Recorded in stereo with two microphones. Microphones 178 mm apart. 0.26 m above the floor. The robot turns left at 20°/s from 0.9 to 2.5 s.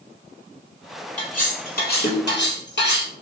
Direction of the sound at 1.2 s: 45° left (ahead or behind).